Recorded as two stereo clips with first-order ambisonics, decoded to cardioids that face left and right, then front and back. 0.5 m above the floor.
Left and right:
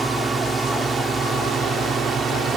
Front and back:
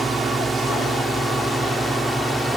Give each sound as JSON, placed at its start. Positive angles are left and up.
{"t": 0.0, "sound": "a drone", "azimuth_deg": -135}